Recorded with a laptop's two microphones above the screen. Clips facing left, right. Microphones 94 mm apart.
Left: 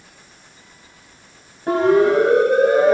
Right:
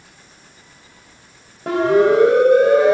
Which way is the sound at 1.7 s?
75° right (ahead or behind).